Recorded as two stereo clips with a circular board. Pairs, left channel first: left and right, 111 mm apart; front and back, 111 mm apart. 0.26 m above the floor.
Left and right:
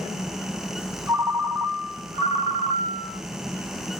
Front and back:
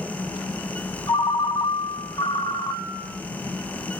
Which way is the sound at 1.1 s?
50° right.